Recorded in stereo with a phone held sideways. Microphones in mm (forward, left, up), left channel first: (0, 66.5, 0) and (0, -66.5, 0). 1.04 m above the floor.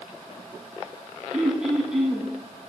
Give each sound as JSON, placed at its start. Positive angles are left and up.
{"t": 1.3, "sound": "throat clearing", "side_deg": -5, "distance_m": 5.5}